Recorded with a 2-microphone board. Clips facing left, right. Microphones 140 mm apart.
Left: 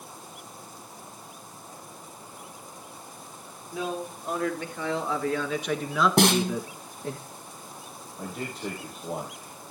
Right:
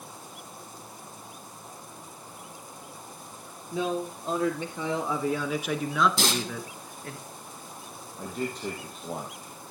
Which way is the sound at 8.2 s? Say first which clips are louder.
Right 2 dB; 5° left (ahead or behind).